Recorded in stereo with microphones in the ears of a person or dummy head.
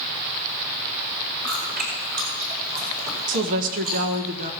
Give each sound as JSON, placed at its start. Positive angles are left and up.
{"t": 1.4, "sound": "chewing", "side_deg": -45, "distance_m": 4.5}
{"t": 3.3, "sound": "a woman speaking", "side_deg": -50, "distance_m": 1.3}